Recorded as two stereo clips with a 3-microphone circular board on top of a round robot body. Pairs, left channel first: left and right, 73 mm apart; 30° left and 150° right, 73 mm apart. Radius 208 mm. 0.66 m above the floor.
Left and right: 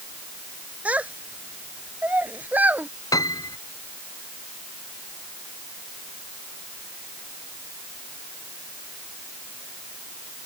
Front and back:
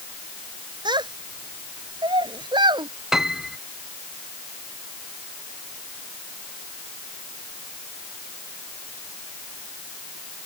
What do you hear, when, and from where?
0.8 s a child speaking: 160° right
3.1 s a piano: 125° left